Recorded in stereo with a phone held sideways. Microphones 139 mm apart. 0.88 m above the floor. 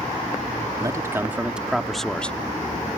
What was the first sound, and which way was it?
A man speaking, 25° right (ahead or behind).